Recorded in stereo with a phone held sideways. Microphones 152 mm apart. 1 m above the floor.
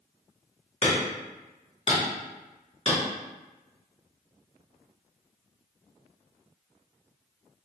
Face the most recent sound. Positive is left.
turn(degrees=40)  # may be behind; listen again after turning